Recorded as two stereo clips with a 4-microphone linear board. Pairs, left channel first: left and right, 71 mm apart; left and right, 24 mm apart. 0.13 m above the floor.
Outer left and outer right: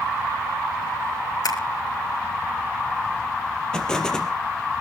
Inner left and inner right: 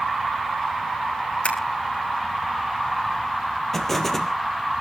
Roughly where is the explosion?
Centre.